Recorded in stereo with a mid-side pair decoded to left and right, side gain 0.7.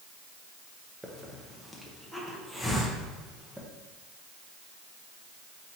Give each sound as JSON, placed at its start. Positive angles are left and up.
{"t": 1.0, "sound": "a hiss", "azimuth_deg": -5, "distance_m": 0.9}